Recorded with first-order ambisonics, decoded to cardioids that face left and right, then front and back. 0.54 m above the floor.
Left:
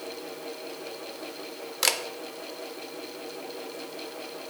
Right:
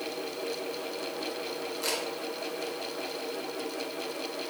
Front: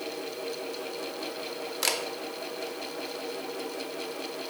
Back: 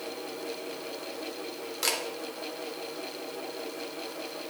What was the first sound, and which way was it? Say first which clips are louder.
A camera shutter: left 7 dB, front 1 dB; 80° left.